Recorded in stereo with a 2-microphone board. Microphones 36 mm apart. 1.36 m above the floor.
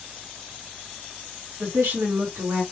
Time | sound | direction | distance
1.6 | a woman speaking | 70° right (ahead or behind) | 2 m